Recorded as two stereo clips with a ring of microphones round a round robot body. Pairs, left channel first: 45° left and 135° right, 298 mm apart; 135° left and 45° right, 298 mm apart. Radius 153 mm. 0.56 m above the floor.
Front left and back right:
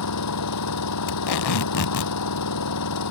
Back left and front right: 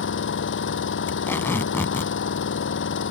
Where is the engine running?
80° left.